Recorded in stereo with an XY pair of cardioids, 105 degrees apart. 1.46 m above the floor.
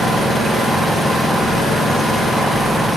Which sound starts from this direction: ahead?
An engine running, at 0.0 s.